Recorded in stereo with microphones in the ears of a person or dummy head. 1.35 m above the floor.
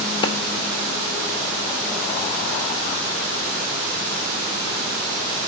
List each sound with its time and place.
0.2 s a clap: 30° left (ahead or behind), 3 m